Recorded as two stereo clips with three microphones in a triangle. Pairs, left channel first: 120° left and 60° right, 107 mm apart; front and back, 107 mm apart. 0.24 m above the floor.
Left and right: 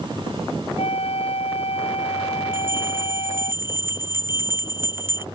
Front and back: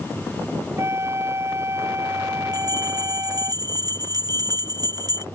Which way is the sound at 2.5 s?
130° right.